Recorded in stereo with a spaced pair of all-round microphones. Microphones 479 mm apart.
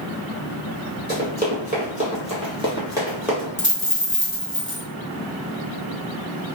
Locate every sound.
1.1 s running footsteps: 20° right (ahead or behind), 1.7 m; by 3.5 s centre (ahead or behind), 1.5 m
3.6 s a dropped coin: 25° left (ahead or behind), 0.8 m